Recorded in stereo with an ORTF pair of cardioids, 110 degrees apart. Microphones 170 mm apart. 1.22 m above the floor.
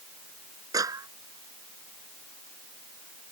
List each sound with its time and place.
0.7 s a clap: 20° right